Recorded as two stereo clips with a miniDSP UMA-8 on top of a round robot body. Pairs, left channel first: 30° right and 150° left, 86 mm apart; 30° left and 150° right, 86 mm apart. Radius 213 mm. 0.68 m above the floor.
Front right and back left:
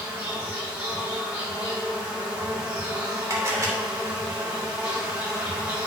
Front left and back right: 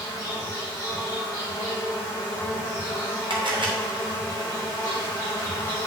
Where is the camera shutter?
160° right, 2.5 m.